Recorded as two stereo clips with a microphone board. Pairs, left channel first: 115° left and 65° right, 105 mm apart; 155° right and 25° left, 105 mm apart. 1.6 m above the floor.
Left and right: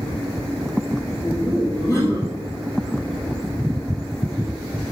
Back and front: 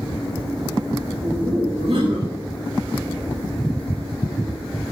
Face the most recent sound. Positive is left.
turn(degrees=50)